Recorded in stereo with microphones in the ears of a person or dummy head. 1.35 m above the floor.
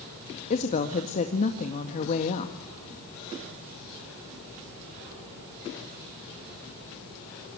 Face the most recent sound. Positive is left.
turn(degrees=40)  # may be behind; listen again after turning